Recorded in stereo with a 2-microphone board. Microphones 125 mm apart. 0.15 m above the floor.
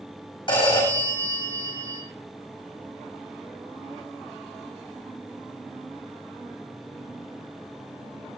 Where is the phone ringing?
40° left (ahead or behind), 7 m.